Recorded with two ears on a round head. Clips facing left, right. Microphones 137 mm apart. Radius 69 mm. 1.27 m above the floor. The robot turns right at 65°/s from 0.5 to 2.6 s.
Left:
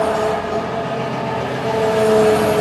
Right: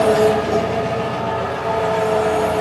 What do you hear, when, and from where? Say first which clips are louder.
0.0 s an engine running: right 4 dB; 35° right, 0.8 m; by 2.6 s 100° left, 0.8 m